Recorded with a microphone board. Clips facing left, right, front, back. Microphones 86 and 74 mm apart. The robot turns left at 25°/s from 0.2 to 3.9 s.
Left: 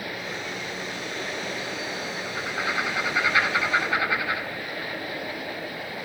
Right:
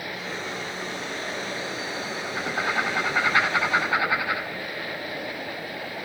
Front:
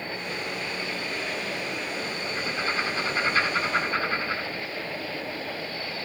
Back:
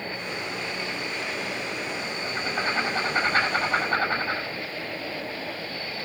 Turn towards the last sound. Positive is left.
turn(degrees=-155)